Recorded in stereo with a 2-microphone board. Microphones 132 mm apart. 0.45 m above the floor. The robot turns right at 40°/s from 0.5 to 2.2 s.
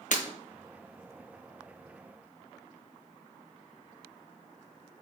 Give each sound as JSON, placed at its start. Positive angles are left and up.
{"t": 0.1, "sound": "breaking glass", "side_deg": 65, "distance_m": 1.0}